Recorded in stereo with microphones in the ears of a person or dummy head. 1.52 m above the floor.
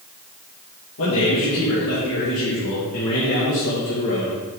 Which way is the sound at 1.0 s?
70° left (ahead or behind).